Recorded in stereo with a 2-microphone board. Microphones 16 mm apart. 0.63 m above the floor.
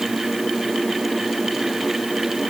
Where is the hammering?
I don't hear hammering.